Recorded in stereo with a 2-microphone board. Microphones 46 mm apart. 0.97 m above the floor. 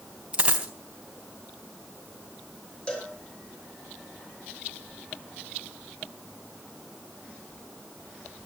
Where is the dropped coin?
30° right (ahead or behind), 3 m.